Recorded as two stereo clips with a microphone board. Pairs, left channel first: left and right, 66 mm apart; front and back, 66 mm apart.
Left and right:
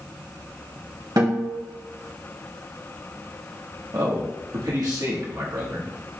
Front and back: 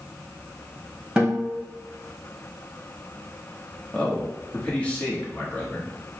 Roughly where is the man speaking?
Right.